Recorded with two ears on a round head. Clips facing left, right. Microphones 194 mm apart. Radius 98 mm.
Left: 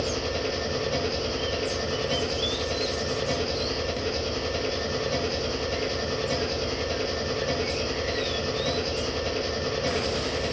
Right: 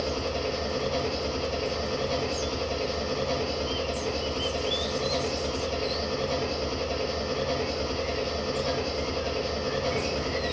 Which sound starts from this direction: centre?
An engine running, at 0.0 s.